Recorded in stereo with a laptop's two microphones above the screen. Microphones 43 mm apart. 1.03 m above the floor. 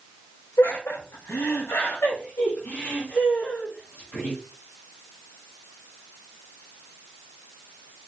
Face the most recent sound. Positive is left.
turn(degrees=45)  # may be behind; listen again after turning